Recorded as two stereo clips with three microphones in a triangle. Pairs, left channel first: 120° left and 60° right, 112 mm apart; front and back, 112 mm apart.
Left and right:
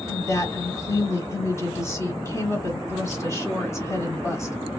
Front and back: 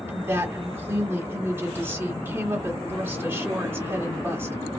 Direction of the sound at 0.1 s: 140° left.